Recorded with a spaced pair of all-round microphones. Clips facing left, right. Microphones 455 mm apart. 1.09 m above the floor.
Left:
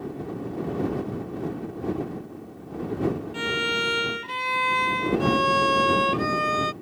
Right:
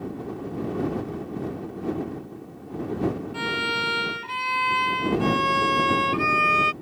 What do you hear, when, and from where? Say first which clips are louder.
3.3 s a violin: left 2 dB; 50° left (ahead or behind)